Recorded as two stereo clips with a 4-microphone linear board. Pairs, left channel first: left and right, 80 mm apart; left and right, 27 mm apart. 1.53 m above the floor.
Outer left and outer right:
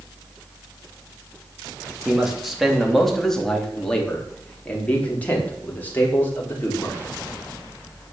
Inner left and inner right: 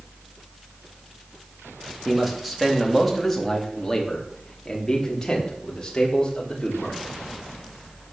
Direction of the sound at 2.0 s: 5° right (ahead or behind).